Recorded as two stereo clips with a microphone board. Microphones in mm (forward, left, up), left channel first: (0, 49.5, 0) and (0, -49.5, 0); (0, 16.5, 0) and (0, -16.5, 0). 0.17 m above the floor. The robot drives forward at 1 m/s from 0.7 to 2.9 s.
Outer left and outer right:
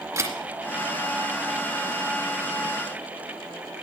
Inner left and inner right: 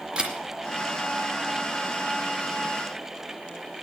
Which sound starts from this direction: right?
A camera shutter, at 0.2 s.